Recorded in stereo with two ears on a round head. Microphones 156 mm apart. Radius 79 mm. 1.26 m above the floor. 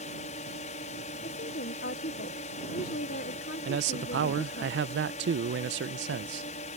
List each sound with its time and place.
0.0 s a drone: 40° left (ahead or behind)
1.2 s a woman speaking: 55° left (ahead or behind)
3.6 s a man speaking: 65° right (ahead or behind)